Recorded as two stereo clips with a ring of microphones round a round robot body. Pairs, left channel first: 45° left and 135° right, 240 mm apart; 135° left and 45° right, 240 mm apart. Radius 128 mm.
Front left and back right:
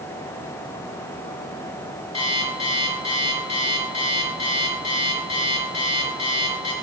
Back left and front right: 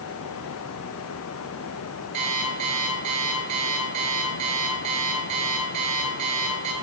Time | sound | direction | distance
2.1 | an alarm clock | 20° right | 3.5 m